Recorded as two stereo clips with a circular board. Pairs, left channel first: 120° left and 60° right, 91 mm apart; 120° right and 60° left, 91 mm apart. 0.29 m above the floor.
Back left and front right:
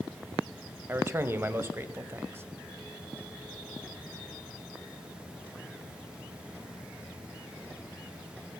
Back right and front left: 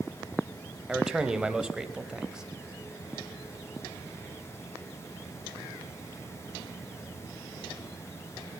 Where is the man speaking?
20° right, 1.2 m.